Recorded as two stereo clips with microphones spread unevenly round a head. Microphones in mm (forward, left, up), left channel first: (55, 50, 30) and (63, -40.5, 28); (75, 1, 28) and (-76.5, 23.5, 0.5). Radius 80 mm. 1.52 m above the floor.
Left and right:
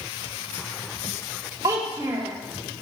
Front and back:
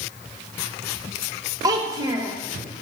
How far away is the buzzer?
No buzzer in this recording.